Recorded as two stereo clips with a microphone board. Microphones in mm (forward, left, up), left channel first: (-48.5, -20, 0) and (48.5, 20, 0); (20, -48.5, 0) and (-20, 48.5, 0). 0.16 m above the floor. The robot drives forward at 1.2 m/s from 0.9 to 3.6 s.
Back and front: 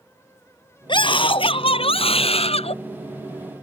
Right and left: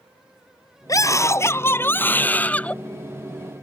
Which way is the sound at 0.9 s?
120° right.